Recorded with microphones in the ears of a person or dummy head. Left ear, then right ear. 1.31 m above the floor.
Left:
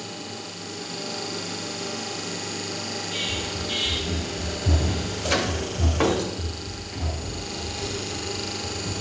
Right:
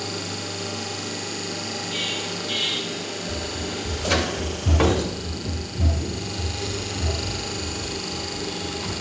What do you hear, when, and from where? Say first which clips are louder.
3.3 s running footsteps: left 2 dB; 50° right (ahead or behind), 1.9 m; by 8.9 s 40° left (ahead or behind), 4 m